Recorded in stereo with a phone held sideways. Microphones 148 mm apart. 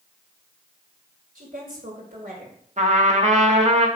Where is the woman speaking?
75° right (ahead or behind), 3.5 m.